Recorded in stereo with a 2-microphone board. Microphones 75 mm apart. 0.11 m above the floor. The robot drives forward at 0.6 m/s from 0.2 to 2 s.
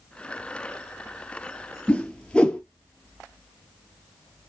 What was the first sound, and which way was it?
A whoosh, 15° left (ahead or behind).